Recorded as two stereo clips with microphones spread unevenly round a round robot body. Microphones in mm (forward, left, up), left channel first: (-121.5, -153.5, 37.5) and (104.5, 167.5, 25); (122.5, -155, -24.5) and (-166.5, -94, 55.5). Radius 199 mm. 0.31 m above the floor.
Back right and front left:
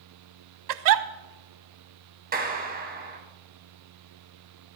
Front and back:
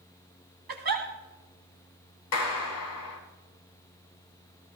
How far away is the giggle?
About 0.7 m.